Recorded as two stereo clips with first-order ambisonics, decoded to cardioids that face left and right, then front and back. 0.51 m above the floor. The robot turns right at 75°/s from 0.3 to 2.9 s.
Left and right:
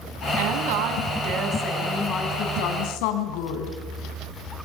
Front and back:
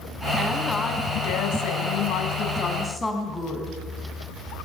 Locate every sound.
0.4 s a woman speaking: 110° right, 4 m; by 3.8 s 80° left, 4 m